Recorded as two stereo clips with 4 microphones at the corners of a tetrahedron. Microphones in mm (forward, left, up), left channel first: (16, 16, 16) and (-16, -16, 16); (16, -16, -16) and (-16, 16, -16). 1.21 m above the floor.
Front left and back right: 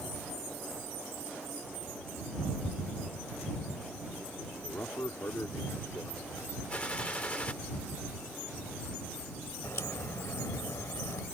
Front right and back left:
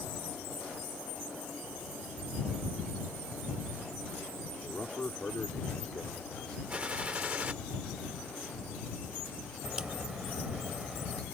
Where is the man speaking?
10° left; by 6.6 s 30° left.